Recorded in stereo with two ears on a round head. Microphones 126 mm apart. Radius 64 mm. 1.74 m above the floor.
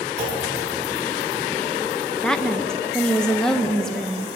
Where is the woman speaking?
5° left (ahead or behind), 0.6 m.